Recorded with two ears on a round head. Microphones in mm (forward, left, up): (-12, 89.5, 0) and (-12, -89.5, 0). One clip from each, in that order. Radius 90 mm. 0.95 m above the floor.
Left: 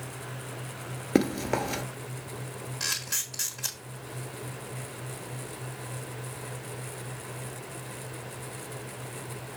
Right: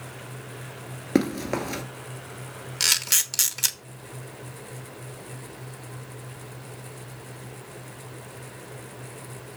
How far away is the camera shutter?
About 1.2 m.